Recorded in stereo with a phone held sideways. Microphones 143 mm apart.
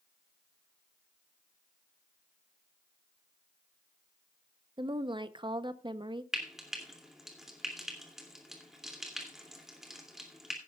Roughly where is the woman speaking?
Right.